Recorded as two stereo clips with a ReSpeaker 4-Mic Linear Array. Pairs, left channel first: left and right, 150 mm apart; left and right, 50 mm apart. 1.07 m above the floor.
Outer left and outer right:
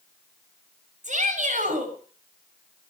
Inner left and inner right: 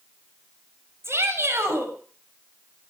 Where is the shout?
55° right (ahead or behind), 6.5 m.